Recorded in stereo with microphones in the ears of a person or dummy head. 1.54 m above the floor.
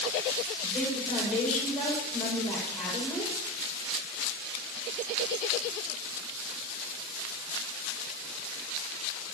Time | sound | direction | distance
0.6 | a woman speaking | 5° left (ahead or behind) | 7.5 m